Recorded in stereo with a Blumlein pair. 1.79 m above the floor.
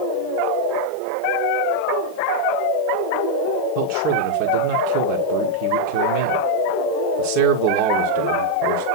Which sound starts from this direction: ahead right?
A man speaking, at 3.8 s.